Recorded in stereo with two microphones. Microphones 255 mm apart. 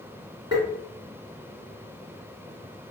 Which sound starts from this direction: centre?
Tapping, at 0.5 s.